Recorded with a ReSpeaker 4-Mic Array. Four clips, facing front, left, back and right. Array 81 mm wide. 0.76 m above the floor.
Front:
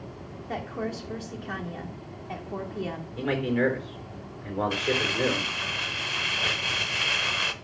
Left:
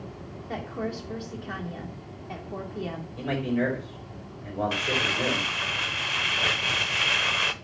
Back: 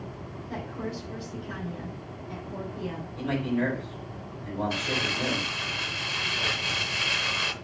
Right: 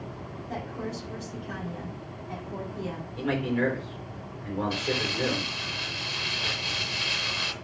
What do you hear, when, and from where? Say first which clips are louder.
0.5 s a woman speaking: left 3 dB, front 3 dB; 30° left, 1.7 m
3.2 s a man speaking: even, front 2 dB; 15° right, 3 m
4.7 s crumpling: left 2 dB, front 3 dB; 75° left, 0.5 m